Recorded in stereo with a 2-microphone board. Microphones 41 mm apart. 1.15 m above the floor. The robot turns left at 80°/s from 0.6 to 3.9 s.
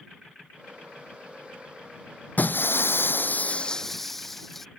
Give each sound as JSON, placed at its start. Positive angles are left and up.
{"t": 2.4, "sound": "breaking glass", "azimuth_deg": 130}